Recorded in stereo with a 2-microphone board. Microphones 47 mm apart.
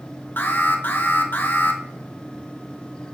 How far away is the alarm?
About 1.4 m.